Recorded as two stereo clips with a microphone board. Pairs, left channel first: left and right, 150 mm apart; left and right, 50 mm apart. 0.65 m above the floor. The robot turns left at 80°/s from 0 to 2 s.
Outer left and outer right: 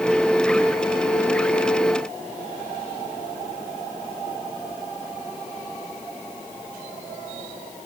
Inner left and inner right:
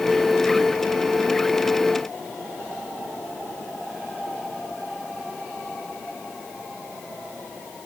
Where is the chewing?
I don't hear chewing.